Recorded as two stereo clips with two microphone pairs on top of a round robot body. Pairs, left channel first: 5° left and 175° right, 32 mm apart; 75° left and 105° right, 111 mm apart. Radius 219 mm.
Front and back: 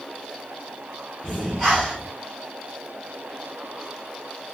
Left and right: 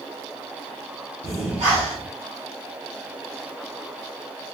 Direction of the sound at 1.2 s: 80° right.